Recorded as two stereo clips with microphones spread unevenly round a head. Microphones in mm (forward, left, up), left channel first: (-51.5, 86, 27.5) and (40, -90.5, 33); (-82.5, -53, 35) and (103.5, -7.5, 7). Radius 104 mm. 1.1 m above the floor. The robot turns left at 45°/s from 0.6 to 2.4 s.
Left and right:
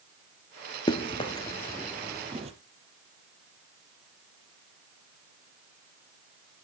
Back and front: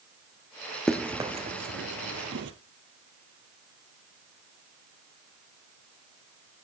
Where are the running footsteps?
140° left, 1.1 m; by 2.5 s 10° right, 1.9 m.